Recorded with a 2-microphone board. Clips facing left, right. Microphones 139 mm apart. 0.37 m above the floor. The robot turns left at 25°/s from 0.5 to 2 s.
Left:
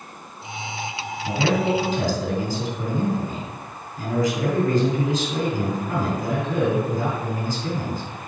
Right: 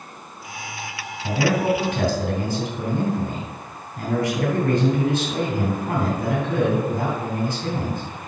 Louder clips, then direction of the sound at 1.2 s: Right 1 dB; 60° right (ahead or behind).